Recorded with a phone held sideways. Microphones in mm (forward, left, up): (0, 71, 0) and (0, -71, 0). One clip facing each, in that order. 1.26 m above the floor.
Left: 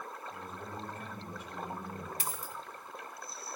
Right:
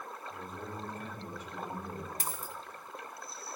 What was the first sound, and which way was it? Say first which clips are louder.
A man speaking: right 1 dB; 40° right (ahead or behind).